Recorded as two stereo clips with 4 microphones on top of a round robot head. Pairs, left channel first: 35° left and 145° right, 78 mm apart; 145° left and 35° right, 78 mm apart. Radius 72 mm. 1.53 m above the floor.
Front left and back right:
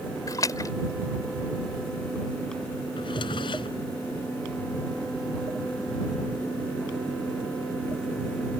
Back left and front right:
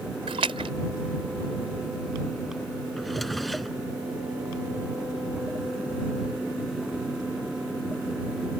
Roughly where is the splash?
Ahead.